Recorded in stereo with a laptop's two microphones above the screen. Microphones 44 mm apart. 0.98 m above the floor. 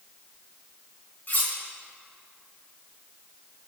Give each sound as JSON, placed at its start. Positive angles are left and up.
{"t": 1.3, "sound": "cutlery clinking", "side_deg": 50, "distance_m": 0.9}